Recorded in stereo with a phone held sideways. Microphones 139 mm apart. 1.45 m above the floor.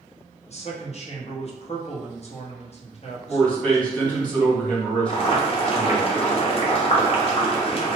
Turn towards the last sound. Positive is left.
turn(degrees=45)  # may be behind; listen again after turning